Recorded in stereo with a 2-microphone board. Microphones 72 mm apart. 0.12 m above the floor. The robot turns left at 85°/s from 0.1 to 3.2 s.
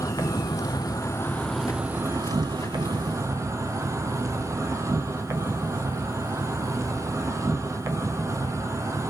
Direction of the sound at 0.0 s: 130° left.